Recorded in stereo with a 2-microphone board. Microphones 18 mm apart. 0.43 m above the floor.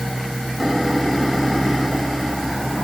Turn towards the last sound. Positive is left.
No sound to turn to.